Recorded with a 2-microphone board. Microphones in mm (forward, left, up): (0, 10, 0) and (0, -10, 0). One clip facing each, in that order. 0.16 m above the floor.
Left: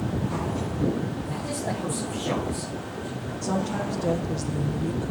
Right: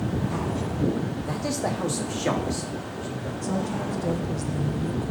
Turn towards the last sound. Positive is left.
turn(degrees=35)  # may be behind; listen again after turning